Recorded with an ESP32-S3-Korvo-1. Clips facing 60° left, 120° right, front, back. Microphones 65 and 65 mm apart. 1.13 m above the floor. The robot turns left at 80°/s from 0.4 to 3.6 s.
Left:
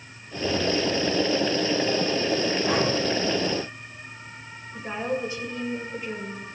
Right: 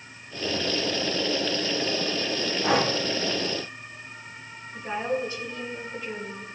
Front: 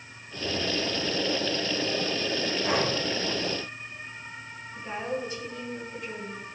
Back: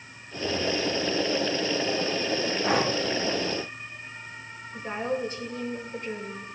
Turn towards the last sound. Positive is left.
turn(degrees=130)